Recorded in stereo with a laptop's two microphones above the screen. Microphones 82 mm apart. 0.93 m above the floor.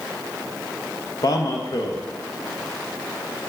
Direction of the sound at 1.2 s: 50° left (ahead or behind).